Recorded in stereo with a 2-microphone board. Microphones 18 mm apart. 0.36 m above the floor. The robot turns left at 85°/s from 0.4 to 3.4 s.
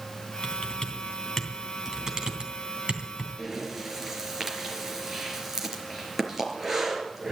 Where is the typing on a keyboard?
70° left (ahead or behind), 3 m; by 3.3 s 25° right (ahead or behind), 3 m.